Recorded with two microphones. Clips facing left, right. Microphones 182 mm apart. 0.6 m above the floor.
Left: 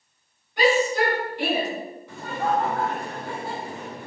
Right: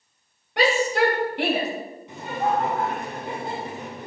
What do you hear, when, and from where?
0.6 s a shout: 80° right, 3 m; by 1.7 s 65° right (ahead or behind), 3.5 m
2.1 s laughter: 20° right (ahead or behind), 2.0 m